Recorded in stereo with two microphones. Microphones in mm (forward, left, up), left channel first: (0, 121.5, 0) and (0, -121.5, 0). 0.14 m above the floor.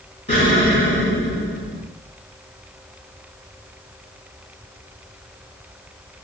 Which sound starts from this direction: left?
An explosion, at 0.3 s.